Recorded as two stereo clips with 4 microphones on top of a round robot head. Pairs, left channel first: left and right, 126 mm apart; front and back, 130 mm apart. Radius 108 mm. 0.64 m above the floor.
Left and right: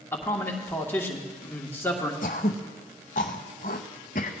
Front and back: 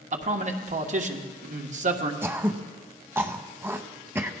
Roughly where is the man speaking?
Behind.